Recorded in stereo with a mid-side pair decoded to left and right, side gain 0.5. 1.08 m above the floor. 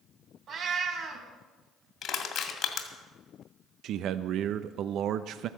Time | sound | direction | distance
0.5 | a cat meowing | 60° right | 2.5 m
2.0 | crushing | 60° left | 2 m
3.8 | a man speaking | 65° right | 0.5 m